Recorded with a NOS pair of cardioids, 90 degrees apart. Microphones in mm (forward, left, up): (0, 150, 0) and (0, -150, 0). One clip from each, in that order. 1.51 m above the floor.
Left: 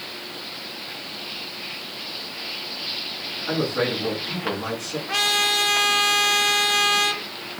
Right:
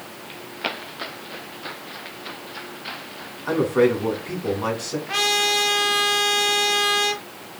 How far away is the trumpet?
About 0.7 m.